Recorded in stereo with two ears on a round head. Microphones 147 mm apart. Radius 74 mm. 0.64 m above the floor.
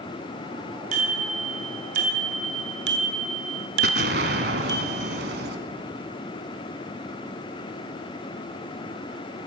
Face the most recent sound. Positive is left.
turn(degrees=-65)  # may be behind; listen again after turning